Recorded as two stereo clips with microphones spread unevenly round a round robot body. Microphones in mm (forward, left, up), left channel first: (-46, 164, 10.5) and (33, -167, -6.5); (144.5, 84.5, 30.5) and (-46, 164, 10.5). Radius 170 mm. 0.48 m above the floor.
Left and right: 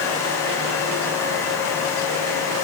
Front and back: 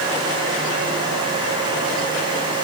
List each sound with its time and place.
Only background noise.